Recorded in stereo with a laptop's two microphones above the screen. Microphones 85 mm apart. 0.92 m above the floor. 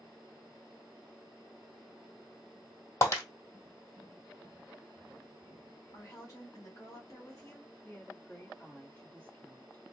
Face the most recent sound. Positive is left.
turn(degrees=20)  # may be behind; listen again after turning